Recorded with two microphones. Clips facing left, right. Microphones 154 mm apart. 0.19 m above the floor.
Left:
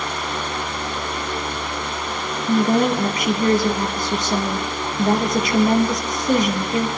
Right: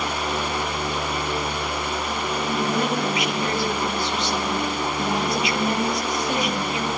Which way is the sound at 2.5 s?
45° left (ahead or behind).